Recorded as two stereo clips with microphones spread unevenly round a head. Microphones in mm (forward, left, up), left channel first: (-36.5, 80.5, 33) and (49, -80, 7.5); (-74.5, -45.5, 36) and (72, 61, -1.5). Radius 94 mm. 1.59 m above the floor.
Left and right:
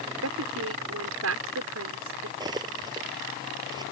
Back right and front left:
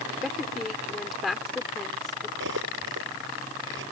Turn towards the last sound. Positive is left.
turn(degrees=10)